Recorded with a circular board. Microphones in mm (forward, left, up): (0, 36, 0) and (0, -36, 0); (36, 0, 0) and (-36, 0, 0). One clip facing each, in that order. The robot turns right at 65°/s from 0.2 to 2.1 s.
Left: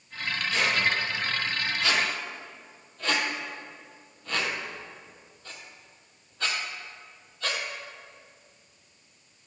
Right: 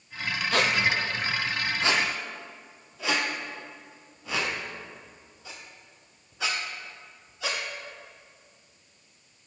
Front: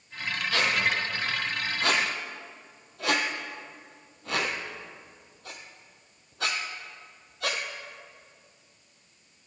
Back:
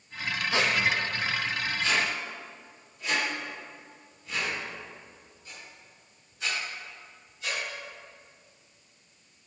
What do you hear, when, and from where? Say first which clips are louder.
0.5 s a squeak: right 2 dB, even; 115° right, 0.7 m; by 7.6 s 10° right, 0.7 m